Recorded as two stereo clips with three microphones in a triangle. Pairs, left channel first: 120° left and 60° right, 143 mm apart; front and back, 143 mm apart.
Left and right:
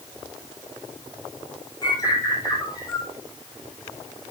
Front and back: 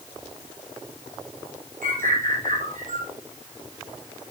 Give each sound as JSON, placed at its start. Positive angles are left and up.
{"t": 1.8, "sound": "a bird", "azimuth_deg": 180, "distance_m": 2.0}